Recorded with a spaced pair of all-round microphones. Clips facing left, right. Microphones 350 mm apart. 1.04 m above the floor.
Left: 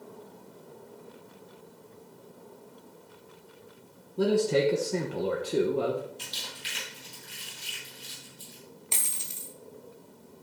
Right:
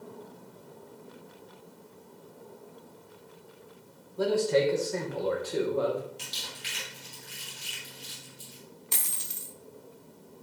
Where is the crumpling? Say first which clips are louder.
Even; 80° right, 4.5 m.